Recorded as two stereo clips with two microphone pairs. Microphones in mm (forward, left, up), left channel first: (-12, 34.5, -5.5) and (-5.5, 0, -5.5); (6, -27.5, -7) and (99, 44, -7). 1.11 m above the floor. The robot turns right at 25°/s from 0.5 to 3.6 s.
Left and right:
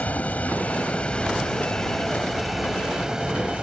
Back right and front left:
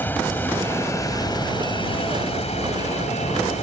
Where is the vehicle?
145° left; by 3.6 s 140° right.